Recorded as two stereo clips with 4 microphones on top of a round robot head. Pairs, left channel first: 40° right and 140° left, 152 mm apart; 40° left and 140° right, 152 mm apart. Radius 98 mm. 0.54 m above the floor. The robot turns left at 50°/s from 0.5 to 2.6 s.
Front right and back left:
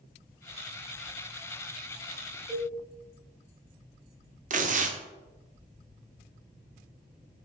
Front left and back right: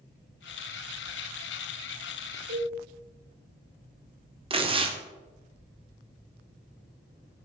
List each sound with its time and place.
2.5 s a cowbell: 140° right, 2.5 m; by 2.7 s 145° right, 2.5 m
4.5 s tearing paper: 170° left, 1.1 m